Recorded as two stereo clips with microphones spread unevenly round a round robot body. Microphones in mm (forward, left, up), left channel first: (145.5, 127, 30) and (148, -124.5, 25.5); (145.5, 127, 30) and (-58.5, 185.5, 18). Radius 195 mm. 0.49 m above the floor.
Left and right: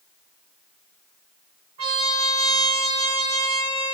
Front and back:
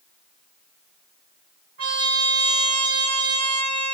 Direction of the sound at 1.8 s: 140° right.